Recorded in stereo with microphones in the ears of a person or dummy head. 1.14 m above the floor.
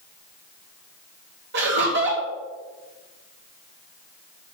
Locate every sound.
1.5 s laughter: 55° right (ahead or behind), 1.7 m